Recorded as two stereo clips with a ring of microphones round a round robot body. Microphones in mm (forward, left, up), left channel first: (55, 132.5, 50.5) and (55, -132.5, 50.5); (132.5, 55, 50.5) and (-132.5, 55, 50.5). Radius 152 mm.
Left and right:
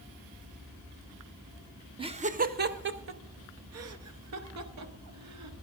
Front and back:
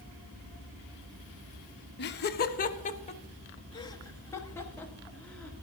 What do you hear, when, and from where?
2.0 s laughter: 25° right, 0.9 m; by 5.5 s 85° right, 2 m